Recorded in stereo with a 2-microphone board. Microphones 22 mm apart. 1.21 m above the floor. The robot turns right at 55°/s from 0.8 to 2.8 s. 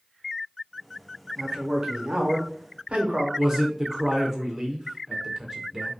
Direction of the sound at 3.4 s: 20° right (ahead or behind).